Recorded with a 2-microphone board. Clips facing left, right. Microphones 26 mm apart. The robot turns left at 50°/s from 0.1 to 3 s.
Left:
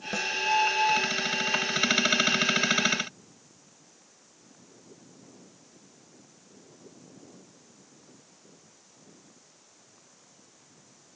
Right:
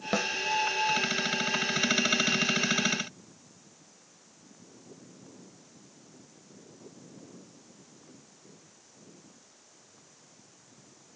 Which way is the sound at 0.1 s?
35° right (ahead or behind).